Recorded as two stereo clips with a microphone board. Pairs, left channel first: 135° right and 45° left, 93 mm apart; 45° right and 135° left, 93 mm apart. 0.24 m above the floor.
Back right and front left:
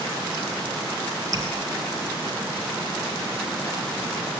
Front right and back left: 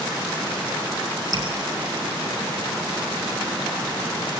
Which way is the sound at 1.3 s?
5° right.